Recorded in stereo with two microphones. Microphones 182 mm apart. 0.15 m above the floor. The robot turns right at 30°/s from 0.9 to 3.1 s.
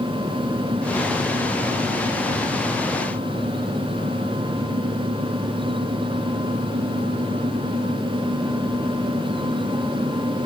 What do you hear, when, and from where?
Only background noise.